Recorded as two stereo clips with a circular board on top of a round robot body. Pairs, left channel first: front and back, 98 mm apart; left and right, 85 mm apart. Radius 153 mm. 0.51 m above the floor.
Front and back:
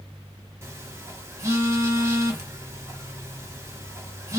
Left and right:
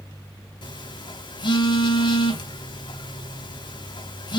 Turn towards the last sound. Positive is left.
turn(degrees=120)